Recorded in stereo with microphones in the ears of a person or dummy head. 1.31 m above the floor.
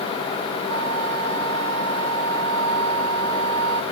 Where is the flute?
85° right.